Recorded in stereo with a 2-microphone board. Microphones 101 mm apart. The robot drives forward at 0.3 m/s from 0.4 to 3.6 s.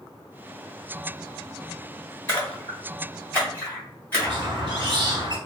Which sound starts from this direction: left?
A splash, at 2.3 s.